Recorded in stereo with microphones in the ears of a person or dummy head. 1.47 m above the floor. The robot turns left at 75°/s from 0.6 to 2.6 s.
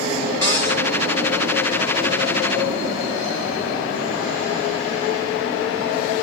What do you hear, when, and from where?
0.4 s a cupboard door: 20° left (ahead or behind), 1.9 m; by 0.8 s 35° left (ahead or behind), 1.9 m